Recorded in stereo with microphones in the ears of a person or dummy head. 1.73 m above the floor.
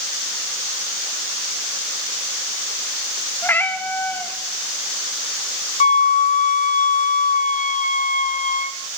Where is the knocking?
No knocking in this recording.